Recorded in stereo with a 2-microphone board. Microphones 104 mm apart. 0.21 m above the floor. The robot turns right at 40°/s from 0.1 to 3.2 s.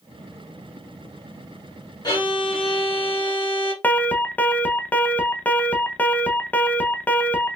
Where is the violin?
45° left, 1.8 m; by 3.7 s 90° left, 1.8 m.